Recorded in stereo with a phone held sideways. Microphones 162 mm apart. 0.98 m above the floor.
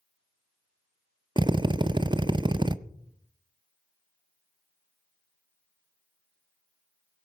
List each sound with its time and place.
1.4 s a drill: 30° right (ahead or behind), 0.5 m